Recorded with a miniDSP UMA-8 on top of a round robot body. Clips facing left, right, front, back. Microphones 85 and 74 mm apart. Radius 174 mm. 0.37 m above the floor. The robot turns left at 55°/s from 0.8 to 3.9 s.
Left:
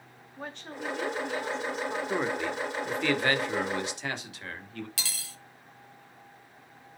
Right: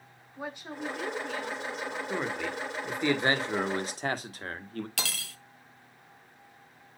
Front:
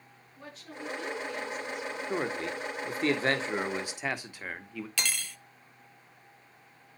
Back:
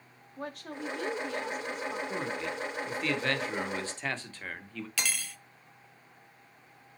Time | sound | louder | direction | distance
0.4 | a woman speaking | right 1 dB, back 5 dB | 170° right | 1.7 m
2.1 | a man speaking | left 2 dB, front 2 dB | 25° left | 1.8 m
5.0 | cutlery clinking | right 5 dB, even | 90° right | 0.8 m